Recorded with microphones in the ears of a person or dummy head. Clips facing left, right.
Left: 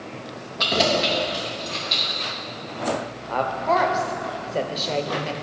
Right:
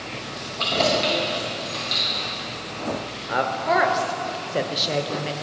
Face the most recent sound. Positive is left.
turn(degrees=-15)  # may be behind; listen again after turning